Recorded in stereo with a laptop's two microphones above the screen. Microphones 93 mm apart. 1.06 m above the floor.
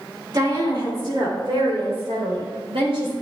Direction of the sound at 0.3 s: 45° right (ahead or behind).